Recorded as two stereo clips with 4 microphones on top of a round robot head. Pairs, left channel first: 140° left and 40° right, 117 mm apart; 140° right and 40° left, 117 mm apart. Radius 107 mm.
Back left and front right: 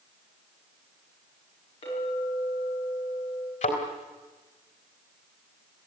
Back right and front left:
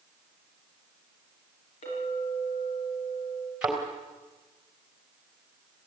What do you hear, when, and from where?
1.8 s a clink: 175° right, 9.5 m
3.6 s a thud: 120° left, 3.5 m